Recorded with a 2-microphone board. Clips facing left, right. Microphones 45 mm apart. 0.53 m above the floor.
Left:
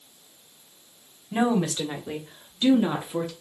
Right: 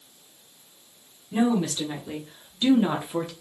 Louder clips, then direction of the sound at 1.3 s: Even; 35° left (ahead or behind).